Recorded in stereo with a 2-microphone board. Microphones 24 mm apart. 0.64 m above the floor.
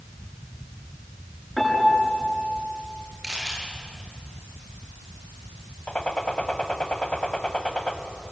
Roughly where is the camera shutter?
Centre.